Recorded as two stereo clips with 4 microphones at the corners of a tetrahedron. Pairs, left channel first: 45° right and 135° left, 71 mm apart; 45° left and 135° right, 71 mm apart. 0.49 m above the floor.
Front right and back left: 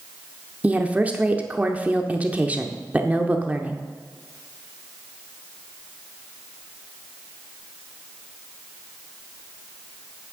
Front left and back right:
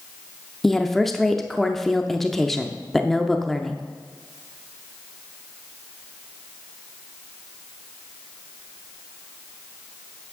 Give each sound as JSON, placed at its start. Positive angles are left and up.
{"t": 0.6, "sound": "a woman speaking", "azimuth_deg": 125, "distance_m": 0.7}